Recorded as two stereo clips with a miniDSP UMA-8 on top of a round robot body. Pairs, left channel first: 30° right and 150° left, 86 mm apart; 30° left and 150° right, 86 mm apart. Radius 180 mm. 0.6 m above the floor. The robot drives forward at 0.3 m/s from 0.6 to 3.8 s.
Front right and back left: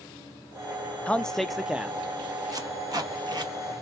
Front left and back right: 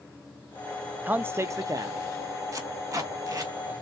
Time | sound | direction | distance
1.1 | a man speaking | 95° right | 0.6 m
2.5 | tape being pulled | 170° left | 1.2 m